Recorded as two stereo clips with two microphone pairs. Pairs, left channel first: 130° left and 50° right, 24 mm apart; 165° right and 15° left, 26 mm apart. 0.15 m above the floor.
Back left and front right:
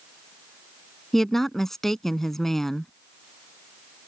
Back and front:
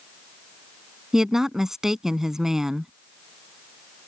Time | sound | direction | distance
1.1 | a woman speaking | 65° left | ?